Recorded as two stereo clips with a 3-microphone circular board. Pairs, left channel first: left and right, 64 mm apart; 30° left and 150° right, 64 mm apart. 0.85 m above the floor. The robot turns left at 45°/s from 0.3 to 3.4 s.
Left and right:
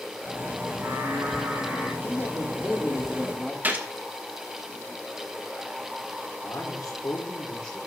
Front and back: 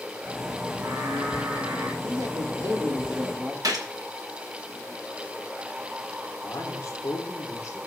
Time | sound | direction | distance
0.7 | singing | 130° right | 2.5 m
2.0 | a man speaking | 135° right | 2 m
3.6 | a gunshot | 150° right | 1.2 m
6.4 | a man speaking | 70° left | 2 m